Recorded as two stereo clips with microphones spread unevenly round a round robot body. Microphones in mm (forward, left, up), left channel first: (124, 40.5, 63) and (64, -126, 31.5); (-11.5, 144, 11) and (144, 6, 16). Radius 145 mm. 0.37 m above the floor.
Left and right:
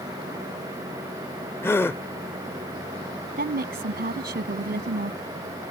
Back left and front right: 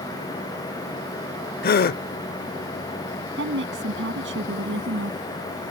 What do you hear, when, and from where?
1.6 s a gasp: 155° left
3.4 s a woman speaking: 85° right